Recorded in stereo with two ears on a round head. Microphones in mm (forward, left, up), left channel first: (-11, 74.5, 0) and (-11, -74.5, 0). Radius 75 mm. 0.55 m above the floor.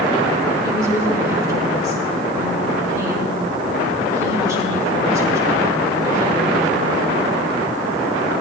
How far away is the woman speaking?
About 6.5 m.